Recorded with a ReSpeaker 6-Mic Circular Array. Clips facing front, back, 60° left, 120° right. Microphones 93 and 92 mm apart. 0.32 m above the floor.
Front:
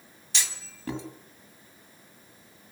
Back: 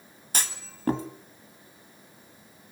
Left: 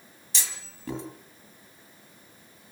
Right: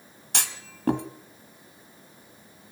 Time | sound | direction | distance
0.3 | a clunk | 140° right | 2 m